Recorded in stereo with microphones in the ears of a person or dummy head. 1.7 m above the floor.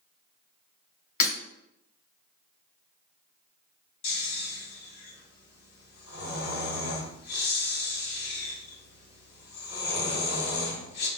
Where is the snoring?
75° left (ahead or behind), 2.5 m.